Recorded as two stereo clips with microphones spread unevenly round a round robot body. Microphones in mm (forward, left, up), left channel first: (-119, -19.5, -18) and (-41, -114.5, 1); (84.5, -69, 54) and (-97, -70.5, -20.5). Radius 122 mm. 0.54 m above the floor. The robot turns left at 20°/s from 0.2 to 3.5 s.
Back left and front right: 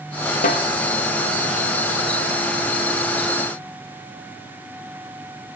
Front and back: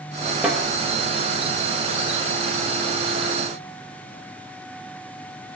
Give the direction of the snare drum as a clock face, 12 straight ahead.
9 o'clock.